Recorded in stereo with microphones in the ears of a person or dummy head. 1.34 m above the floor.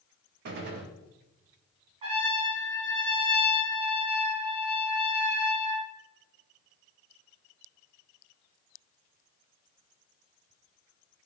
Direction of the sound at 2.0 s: 30° right (ahead or behind).